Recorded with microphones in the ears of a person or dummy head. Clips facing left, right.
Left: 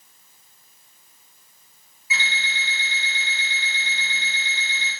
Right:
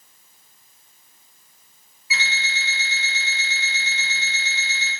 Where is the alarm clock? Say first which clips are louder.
Even; 5° right (ahead or behind), 1.3 m.